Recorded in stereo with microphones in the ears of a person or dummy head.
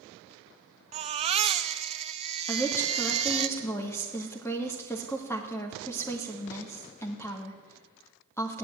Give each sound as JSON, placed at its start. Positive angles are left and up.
{"t": 0.9, "sound": "a baby crying", "side_deg": -35, "distance_m": 0.7}
{"t": 2.5, "sound": "a woman speaking", "side_deg": 15, "distance_m": 2.0}